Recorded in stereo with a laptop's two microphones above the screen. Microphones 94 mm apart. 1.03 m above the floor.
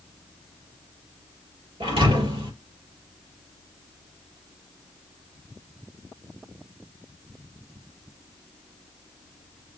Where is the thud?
80° right, 3.5 m.